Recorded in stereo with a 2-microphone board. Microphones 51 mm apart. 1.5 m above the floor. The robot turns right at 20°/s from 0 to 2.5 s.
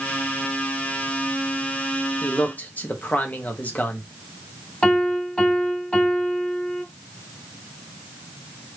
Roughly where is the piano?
Centre.